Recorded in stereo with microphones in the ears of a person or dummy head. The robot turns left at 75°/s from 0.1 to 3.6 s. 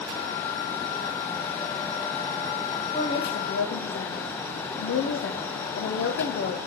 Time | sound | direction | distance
2.9 | a woman speaking | 160° left | 1.0 m